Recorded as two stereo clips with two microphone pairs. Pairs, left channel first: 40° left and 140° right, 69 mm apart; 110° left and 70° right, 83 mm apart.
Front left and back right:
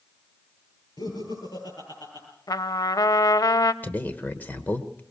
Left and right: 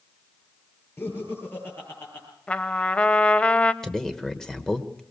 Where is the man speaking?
35° left, 1.3 m.